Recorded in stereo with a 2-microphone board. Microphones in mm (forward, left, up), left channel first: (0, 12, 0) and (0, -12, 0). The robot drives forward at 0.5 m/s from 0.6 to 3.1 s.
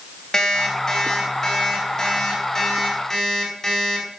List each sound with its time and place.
0.3 s an alarm clock: 20° left (ahead or behind), 3.5 m; by 4.2 s 15° left (ahead or behind), 4.5 m